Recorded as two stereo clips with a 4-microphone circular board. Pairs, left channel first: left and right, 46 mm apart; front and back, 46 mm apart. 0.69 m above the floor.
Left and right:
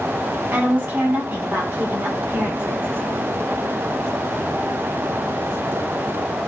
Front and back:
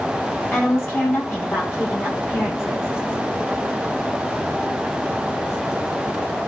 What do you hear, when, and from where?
0.5 s a woman speaking: 35° right, 7.5 m